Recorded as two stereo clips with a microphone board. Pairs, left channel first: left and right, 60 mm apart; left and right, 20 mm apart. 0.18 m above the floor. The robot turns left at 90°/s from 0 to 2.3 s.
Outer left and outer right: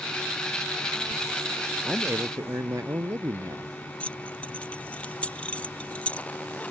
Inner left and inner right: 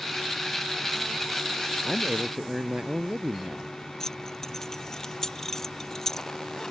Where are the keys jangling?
20° left (ahead or behind).